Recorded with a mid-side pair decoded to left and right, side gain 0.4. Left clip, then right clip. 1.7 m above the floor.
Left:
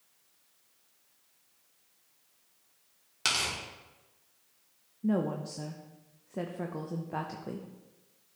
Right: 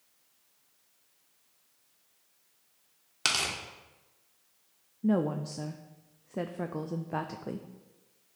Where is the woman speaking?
30° right, 0.6 m.